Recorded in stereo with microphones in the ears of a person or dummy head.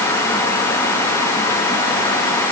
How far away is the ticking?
No ticking in this recording.